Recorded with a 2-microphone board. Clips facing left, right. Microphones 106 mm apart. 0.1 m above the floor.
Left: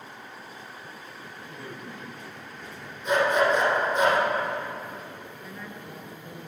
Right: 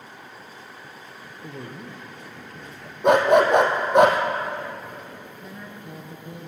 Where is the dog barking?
65° right (ahead or behind), 1.8 m.